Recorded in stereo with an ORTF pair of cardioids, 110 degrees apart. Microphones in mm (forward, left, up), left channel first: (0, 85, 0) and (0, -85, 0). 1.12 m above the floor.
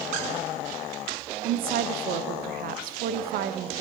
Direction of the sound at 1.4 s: 65° right.